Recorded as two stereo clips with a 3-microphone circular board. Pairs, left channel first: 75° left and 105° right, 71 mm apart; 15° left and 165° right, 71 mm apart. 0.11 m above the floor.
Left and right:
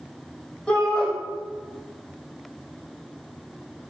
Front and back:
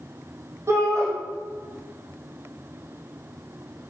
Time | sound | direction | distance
0.7 | a shout | 150° left | 4 m